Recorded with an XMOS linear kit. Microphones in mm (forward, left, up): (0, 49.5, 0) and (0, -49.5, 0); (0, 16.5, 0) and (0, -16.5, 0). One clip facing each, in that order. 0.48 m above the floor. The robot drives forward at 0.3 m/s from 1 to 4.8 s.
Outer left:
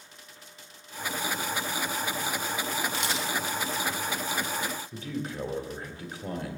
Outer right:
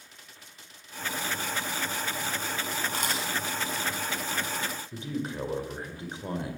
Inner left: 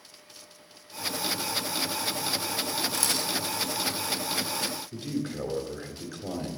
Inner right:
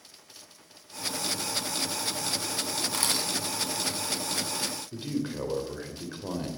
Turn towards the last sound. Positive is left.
turn(degrees=-25)  # may be behind; listen again after turning